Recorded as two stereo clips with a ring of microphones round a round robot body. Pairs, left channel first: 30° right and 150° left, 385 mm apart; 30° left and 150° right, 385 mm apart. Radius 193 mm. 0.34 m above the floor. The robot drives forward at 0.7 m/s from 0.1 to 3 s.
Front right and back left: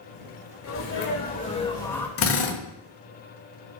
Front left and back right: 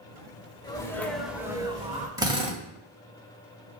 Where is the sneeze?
40° right, 1.7 m; by 2.1 s 110° right, 1.6 m.